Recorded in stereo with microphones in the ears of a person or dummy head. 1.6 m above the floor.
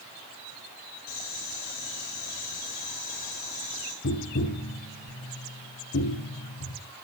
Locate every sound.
1.1 s boiling: 45° left (ahead or behind), 3.5 m
4.0 s tapping: 70° left (ahead or behind), 1.6 m